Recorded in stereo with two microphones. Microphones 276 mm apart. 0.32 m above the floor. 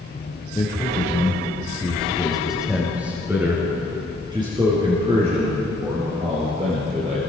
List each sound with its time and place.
0.6 s a man speaking: 15° left (ahead or behind), 4.5 m; by 7.2 s 30° right (ahead or behind), 6.5 m